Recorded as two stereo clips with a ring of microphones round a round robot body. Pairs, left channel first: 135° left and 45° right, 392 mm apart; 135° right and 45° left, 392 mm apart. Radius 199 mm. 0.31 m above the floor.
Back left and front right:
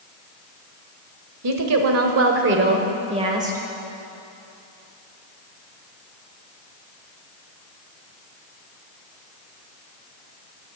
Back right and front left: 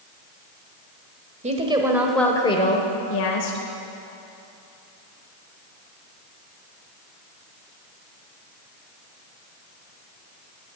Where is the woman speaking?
20° right, 1.5 m; by 3.6 s 125° right, 1.4 m.